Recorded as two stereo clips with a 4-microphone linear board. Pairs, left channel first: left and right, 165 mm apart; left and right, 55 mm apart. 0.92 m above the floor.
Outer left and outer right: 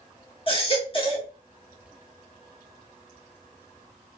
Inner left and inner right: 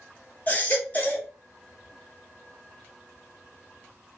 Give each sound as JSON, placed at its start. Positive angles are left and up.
{"t": 0.5, "sound": "a baby crying", "side_deg": 35, "distance_m": 0.9}